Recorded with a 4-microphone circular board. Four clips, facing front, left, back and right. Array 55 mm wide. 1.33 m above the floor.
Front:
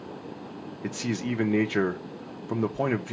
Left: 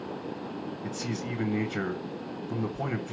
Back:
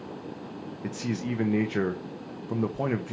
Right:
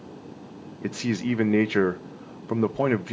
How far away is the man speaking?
About 0.9 m.